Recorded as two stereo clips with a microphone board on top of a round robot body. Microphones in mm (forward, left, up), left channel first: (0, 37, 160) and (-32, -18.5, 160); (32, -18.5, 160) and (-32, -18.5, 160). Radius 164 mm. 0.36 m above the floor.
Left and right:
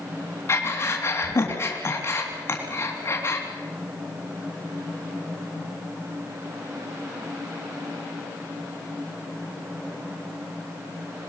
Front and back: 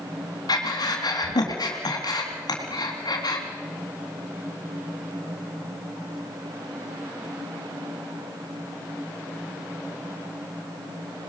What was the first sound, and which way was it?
Breathing, 10° left.